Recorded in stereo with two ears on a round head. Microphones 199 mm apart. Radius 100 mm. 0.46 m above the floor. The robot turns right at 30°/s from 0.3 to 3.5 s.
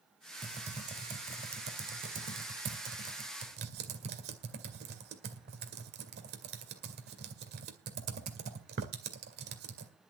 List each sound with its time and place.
0.4 s typing on a keyboard: 20° right (ahead or behind), 2 m; by 9.9 s 45° right (ahead or behind), 2 m